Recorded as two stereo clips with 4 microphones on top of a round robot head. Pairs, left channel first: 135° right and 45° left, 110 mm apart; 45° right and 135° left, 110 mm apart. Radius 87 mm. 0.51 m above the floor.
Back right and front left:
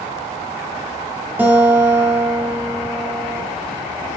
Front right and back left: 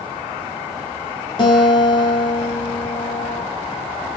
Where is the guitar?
20° right, 0.8 m.